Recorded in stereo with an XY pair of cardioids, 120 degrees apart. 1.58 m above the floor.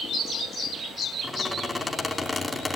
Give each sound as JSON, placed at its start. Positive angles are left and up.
{"t": 1.2, "sound": "a squeak", "azimuth_deg": 15, "distance_m": 2.5}